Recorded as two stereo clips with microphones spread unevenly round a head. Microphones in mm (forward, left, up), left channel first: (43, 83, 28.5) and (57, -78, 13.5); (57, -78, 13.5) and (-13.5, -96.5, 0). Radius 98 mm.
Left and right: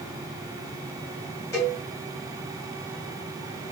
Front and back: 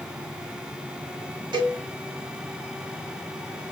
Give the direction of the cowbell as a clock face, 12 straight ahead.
6 o'clock.